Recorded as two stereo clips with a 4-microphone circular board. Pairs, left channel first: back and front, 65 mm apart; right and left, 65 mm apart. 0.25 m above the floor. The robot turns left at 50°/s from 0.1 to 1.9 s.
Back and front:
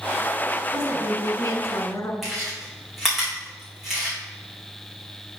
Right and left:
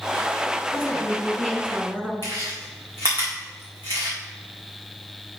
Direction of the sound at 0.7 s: 145° right.